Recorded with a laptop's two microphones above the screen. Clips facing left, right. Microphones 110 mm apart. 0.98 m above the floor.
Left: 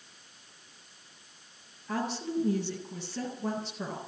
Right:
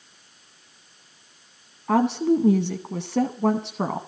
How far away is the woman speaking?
About 0.8 m.